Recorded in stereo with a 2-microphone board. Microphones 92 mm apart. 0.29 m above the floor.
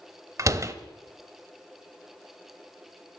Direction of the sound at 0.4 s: 35° right (ahead or behind).